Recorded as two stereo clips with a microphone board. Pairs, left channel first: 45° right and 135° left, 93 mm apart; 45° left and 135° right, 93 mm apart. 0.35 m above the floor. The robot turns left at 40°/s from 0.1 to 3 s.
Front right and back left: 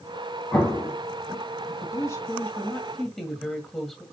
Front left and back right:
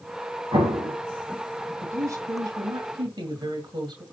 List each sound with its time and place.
0.5 s an explosion: 110° right, 3 m; by 1.0 s 130° right, 3 m
1.8 s a woman speaking: 80° right, 1.9 m; by 4.0 s 130° right, 1.9 m